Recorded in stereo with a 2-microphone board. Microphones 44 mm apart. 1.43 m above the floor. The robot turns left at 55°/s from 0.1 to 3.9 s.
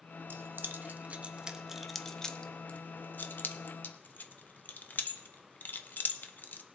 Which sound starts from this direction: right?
Keys jangling, at 0.3 s.